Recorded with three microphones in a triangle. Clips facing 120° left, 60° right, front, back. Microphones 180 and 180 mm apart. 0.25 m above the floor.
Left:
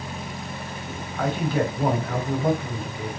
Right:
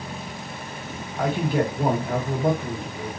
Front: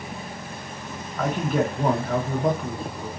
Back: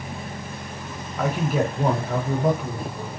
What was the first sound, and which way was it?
A man speaking, 110° right.